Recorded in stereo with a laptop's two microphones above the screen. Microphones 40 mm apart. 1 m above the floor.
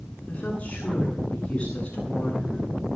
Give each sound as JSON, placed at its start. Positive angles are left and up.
{"t": 0.3, "sound": "a woman speaking", "side_deg": 30, "distance_m": 9.0}